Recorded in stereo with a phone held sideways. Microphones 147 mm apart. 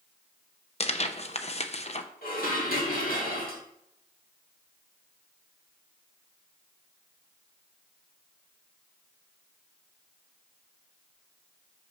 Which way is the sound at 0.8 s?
50° left (ahead or behind).